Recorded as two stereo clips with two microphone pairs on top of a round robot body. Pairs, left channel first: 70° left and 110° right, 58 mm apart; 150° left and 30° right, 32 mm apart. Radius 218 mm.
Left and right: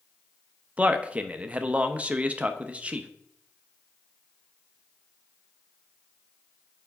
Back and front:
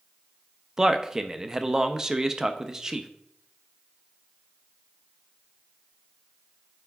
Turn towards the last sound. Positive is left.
turn(degrees=-85)